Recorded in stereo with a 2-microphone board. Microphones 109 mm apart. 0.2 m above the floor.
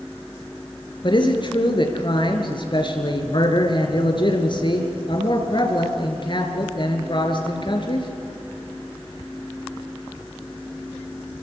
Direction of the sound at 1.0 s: 45° left (ahead or behind).